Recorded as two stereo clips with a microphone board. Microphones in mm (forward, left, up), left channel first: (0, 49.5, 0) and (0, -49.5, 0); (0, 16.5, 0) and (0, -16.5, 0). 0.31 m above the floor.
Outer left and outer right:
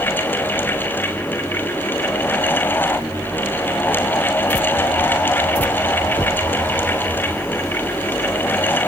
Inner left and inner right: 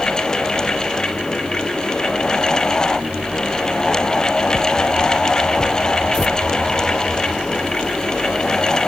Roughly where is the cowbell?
No cowbell in this recording.